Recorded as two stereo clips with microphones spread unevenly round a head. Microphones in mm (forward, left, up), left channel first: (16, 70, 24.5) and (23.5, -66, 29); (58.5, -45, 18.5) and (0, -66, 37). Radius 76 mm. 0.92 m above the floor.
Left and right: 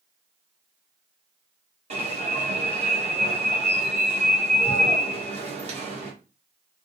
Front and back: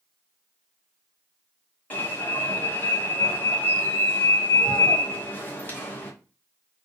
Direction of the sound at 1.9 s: 40° right.